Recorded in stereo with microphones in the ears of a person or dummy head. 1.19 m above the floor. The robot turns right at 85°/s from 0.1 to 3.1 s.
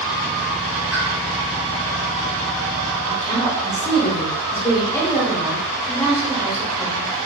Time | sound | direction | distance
0.9 | a pop | 5° right (ahead or behind) | 1.5 m
3.1 | a woman speaking | 10° left (ahead or behind) | 0.7 m